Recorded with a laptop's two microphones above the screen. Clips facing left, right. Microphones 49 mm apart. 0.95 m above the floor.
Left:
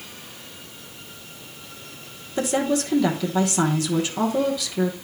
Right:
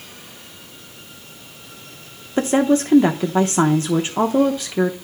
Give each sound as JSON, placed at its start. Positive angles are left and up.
{"t": 2.4, "sound": "a woman speaking", "side_deg": -30, "distance_m": 0.8}